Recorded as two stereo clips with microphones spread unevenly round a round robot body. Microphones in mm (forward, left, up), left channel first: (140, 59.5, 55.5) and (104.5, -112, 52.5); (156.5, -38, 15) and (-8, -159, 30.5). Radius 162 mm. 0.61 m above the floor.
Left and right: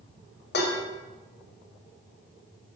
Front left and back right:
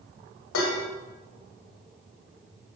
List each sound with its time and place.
0.5 s dishes clattering: 60° left, 1.3 m